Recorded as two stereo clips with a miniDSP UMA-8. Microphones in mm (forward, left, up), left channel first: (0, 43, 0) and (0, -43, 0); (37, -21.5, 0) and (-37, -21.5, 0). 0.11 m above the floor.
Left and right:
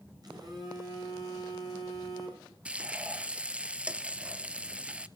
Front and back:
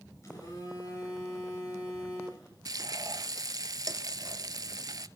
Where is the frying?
165° right, 0.6 m.